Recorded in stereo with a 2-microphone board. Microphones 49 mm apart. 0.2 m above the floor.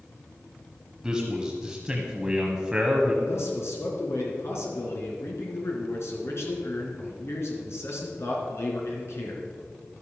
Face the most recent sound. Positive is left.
turn(degrees=60)  # may be behind; listen again after turning